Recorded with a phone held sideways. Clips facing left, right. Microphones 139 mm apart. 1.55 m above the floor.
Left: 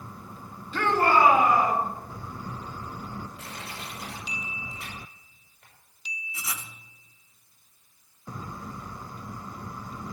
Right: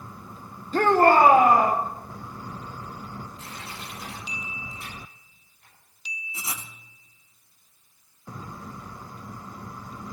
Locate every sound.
0.7 s a shout: 40° right (ahead or behind), 1.2 m; by 1.8 s 50° right (ahead or behind), 3 m
3.4 s crushing: 80° left, 6.5 m
6.3 s writing: 30° right (ahead or behind), 1.0 m